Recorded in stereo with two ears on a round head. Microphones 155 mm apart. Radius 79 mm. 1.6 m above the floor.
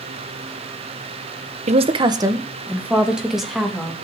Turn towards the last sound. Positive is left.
turn(degrees=0)  # may be behind; listen again after turning